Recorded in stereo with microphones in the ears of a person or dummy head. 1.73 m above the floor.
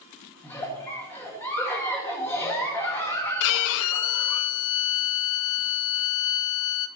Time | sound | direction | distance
0.4 | a giggle | 15° left (ahead or behind) | 1.6 m
3.4 | a violin | 70° left (ahead or behind) | 0.7 m